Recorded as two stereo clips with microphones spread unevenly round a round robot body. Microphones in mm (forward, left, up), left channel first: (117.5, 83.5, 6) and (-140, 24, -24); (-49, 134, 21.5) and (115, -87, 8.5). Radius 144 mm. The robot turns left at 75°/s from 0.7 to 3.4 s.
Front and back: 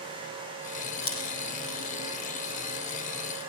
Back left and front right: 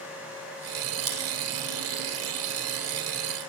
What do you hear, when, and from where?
1.0 s scissors: 45° right, 8 m; by 1.2 s 55° right, 8 m